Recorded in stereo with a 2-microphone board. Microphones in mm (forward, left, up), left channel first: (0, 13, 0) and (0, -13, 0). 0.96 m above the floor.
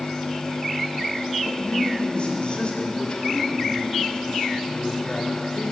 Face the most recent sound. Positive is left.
turn(degrees=30)  # may be behind; listen again after turning